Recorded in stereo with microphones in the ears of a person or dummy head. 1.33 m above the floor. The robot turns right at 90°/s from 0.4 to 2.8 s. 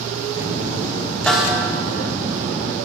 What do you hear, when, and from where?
1.3 s a snare drum: 175° left, 1.1 m; by 1.6 s 155° right, 1.1 m